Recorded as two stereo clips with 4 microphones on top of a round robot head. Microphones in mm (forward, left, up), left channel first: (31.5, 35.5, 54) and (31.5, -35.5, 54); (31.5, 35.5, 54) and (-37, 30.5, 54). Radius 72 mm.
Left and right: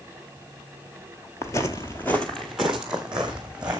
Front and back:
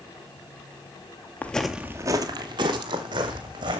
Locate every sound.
1.4 s footsteps: 60° left, 0.6 m; by 3.8 s 170° right, 1.8 m